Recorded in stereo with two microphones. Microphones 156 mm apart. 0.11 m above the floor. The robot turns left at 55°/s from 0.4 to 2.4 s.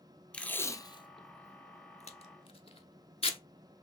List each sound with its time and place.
0.3 s tape being pulled: 10° left (ahead or behind), 0.6 m; by 3.4 s 40° left (ahead or behind), 0.6 m